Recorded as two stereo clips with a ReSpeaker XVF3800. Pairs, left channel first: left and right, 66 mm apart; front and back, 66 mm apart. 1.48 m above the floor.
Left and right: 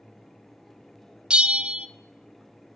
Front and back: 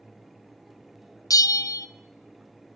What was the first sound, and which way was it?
A bell, 15° right.